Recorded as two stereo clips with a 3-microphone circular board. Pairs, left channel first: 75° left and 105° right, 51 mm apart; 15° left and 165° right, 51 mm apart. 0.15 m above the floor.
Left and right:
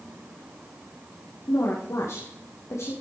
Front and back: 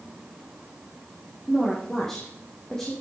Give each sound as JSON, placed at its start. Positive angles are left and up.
{"t": 1.5, "sound": "a woman speaking", "azimuth_deg": 95, "distance_m": 5.0}